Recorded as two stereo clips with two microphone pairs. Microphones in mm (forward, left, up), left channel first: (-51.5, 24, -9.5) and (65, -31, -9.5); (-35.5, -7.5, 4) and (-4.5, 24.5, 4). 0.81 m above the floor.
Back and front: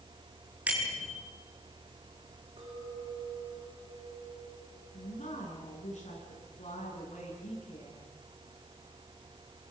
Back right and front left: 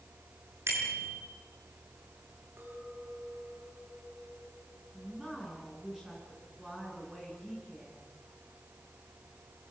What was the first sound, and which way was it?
A bicycle bell, 55° left.